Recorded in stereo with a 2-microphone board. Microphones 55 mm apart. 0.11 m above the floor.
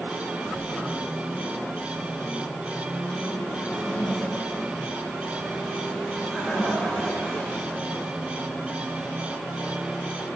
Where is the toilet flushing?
20° left (ahead or behind), 3.5 m.